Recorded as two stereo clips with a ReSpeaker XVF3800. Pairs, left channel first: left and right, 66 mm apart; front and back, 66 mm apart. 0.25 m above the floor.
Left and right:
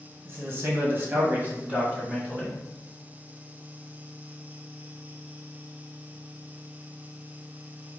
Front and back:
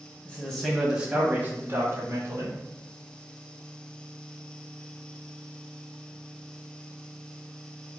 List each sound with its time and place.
0.2 s a man speaking: 60° right, 1.4 m; by 2.6 s 165° right, 2.0 m